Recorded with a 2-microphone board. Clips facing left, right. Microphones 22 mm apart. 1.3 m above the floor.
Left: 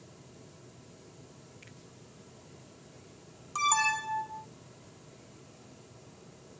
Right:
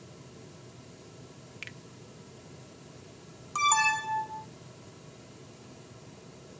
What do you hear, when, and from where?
1.6 s a finger snap: 80° right
3.5 s an alarm: 10° right (ahead or behind)